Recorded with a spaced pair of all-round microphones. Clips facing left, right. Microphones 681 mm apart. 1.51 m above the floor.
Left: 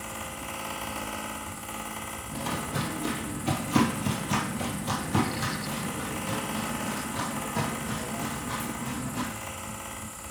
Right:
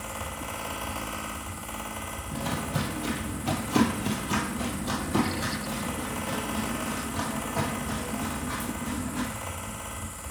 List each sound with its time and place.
0.0 s a fan: 5° right (ahead or behind), 1.4 m
2.3 s footsteps: 20° right (ahead or behind), 1.7 m; by 9.2 s 60° left (ahead or behind), 3.5 m